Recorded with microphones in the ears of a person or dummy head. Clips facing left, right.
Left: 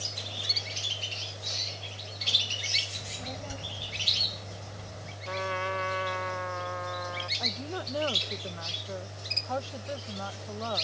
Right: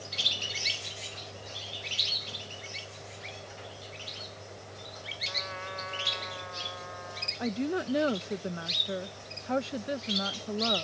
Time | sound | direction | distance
3.0 | a child speaking | 85° left | ?
5.2 | a trumpet | 70° left (ahead or behind) | ?
7.4 | a woman speaking | 30° right (ahead or behind) | ?